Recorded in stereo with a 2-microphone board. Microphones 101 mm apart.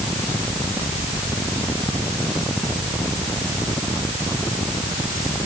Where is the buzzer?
I don't hear a buzzer.